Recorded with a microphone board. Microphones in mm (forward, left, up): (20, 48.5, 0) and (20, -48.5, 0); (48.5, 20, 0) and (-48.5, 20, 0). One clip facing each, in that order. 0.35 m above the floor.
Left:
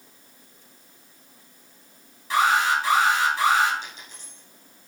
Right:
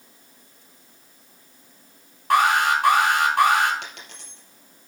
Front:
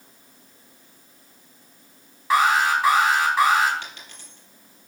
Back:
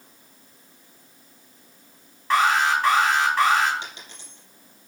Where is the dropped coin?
110° right, 3.5 m.